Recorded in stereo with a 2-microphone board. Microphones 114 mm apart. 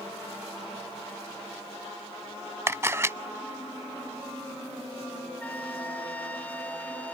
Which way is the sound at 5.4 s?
15° left (ahead or behind).